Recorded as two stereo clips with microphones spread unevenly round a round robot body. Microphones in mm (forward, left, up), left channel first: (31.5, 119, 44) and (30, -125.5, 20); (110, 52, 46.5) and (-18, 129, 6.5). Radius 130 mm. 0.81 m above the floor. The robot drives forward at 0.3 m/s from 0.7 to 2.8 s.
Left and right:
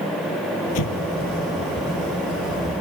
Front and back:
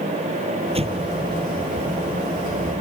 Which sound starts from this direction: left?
An explosion, at 0.8 s.